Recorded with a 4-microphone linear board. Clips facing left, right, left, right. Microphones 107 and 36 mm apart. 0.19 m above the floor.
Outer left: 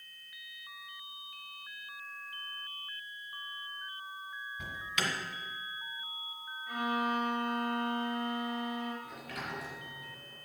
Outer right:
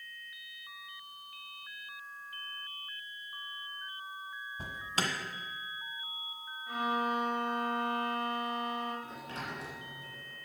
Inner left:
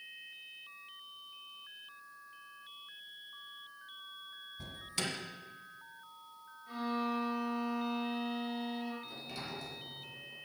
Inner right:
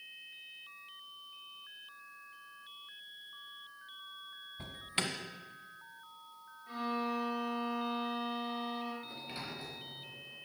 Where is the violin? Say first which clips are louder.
Even, even; 20° right (ahead or behind), 4.5 m.